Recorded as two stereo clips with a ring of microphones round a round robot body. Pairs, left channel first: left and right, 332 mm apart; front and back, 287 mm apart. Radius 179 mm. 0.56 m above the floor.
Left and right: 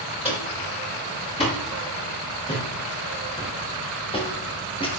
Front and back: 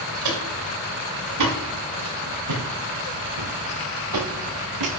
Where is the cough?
I don't hear a cough.